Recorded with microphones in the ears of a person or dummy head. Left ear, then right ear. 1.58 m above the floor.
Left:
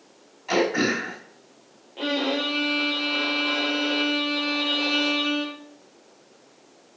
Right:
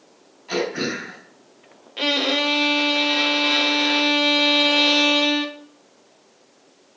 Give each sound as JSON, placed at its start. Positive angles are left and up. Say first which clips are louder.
{"t": 0.5, "sound": "throat clearing", "louder": "left 2 dB", "side_deg": 25, "distance_m": 3.5}
{"t": 2.0, "sound": "a violin", "louder": "right 5 dB", "side_deg": -55, "distance_m": 1.5}